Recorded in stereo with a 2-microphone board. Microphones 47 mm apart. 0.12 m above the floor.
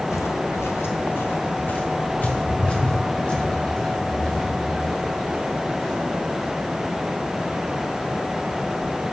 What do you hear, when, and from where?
0.1 s footsteps: 85° left, 0.7 m; by 6.5 s 15° left (ahead or behind), 3.5 m